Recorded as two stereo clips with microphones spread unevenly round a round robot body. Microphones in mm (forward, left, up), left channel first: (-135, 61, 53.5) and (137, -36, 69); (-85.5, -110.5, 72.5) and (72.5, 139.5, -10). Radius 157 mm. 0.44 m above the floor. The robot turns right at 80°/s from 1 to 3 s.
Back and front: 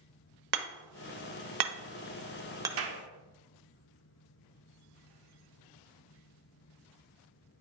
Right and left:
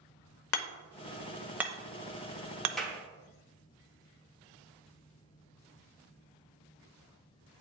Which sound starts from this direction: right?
Hammering, at 0.5 s.